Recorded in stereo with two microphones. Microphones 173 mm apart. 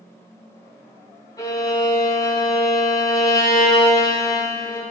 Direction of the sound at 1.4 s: 20° left (ahead or behind).